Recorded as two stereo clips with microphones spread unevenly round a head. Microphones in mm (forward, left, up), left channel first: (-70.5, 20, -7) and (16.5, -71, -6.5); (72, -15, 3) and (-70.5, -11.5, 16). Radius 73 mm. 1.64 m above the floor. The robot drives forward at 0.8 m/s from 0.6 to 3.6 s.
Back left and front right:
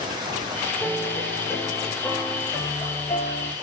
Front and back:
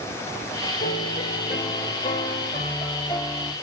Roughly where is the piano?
Ahead left.